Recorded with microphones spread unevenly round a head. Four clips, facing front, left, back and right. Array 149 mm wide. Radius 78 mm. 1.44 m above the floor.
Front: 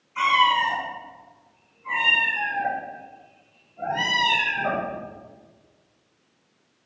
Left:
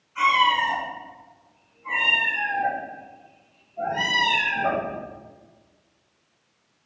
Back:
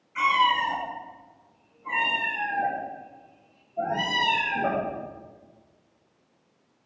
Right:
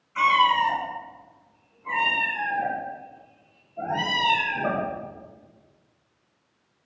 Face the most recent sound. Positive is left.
turn(degrees=-170)